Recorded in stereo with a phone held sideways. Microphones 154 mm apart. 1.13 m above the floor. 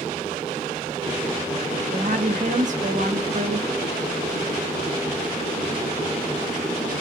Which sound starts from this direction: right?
A woman speaking, at 1.9 s.